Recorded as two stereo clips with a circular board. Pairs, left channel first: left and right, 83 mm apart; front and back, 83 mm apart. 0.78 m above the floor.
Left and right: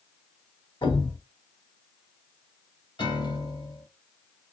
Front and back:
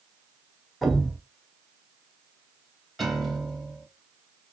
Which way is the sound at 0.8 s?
90° left.